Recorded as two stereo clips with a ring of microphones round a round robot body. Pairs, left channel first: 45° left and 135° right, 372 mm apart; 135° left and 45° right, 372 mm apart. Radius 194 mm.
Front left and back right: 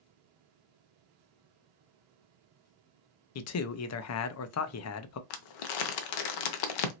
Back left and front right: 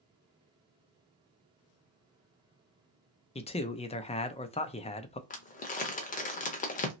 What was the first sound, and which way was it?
A man speaking, 70° left.